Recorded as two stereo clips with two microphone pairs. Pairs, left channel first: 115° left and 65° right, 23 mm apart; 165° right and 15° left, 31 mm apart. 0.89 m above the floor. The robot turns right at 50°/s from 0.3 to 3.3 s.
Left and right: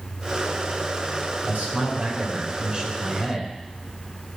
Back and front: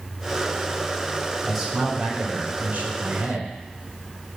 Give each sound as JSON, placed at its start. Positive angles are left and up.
{"t": 1.4, "sound": "a man speaking", "azimuth_deg": -80, "distance_m": 3.0}